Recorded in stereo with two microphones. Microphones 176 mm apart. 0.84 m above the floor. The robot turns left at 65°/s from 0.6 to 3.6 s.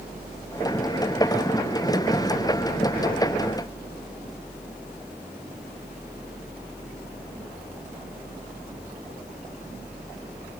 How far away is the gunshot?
I don't hear a gunshot.